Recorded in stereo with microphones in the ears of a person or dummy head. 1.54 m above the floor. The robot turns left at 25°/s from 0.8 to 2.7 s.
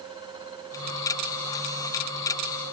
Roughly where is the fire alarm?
I don't hear a fire alarm.